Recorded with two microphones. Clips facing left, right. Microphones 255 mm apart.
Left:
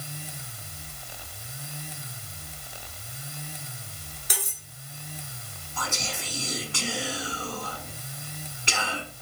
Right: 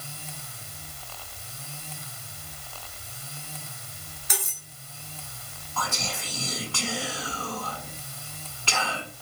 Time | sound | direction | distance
4.3 | cutlery clinking | 35° left (ahead or behind) | 1.1 m
5.8 | whispering | 20° left (ahead or behind) | 1.1 m